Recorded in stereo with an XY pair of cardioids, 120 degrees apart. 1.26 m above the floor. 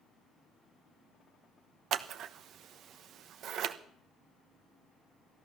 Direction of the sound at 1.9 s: 60° right.